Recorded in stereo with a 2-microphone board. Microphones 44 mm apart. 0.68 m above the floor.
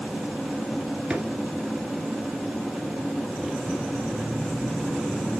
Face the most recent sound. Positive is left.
turn(degrees=-25)  # may be behind; listen again after turning